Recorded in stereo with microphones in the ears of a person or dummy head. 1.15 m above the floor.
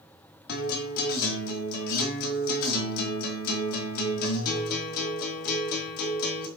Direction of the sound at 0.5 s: 55° left (ahead or behind).